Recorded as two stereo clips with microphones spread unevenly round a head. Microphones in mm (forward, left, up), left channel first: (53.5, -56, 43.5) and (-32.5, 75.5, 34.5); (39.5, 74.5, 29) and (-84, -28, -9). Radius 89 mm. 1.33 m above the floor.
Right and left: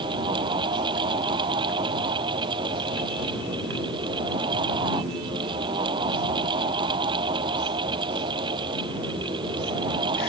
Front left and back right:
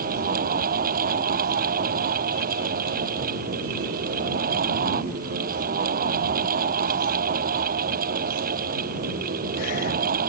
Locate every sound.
0.0 s a fan: 175° right